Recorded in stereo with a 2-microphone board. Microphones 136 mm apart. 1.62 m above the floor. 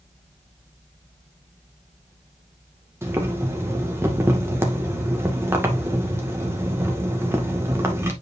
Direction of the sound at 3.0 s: 20° right (ahead or behind).